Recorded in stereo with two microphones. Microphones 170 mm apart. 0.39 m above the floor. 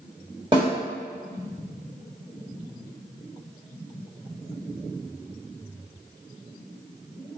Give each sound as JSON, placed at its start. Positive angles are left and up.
{"t": 0.5, "sound": "a snare drum", "side_deg": -30, "distance_m": 1.2}